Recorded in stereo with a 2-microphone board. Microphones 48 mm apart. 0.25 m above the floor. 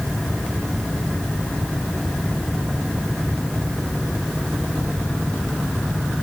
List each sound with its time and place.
Only background noise.